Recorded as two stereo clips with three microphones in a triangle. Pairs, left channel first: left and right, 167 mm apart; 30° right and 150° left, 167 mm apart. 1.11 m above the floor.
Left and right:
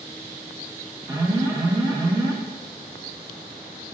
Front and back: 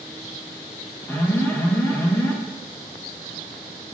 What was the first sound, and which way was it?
An alarm, 85° right.